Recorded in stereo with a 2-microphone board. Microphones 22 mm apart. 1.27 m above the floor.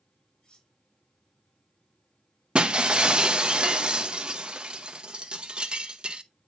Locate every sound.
0.4 s cutlery clinking: 45° left (ahead or behind), 5 m
2.5 s breaking glass: 50° right (ahead or behind), 0.7 m